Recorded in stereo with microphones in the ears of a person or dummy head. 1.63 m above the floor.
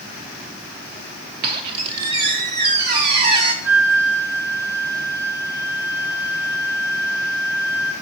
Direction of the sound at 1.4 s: 30° right (ahead or behind).